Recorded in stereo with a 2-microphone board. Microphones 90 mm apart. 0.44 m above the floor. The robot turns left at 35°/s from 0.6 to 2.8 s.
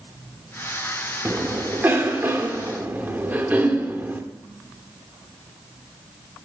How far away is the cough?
About 0.9 m.